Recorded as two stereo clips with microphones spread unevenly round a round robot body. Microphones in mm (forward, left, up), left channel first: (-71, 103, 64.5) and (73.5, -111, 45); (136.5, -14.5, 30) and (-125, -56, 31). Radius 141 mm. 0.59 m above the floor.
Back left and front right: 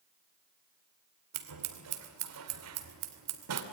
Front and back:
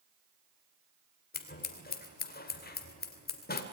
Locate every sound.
1.3 s scissors: 45° right, 2 m